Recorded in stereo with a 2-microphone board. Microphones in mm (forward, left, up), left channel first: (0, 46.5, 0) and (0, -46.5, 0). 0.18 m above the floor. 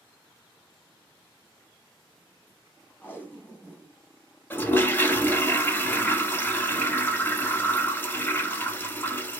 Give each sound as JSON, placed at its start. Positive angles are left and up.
{"t": 3.0, "sound": "tape being pulled", "side_deg": 20, "distance_m": 0.8}
{"t": 4.5, "sound": "a toilet flushing", "side_deg": 20, "distance_m": 0.7}